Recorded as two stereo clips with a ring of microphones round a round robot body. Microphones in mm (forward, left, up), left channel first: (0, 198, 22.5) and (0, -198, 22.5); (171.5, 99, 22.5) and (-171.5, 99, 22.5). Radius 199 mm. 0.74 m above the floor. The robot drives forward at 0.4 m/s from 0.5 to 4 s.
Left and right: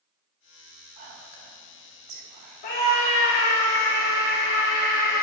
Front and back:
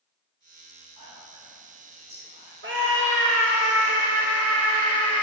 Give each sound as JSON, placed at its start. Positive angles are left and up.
{"t": 1.0, "sound": "whispering", "azimuth_deg": -100, "distance_m": 6.5}
{"t": 2.6, "sound": "a scream", "azimuth_deg": 125, "distance_m": 3.0}